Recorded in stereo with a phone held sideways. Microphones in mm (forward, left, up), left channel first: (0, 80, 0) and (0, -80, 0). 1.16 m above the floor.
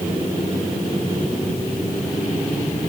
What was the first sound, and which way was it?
Only background noise.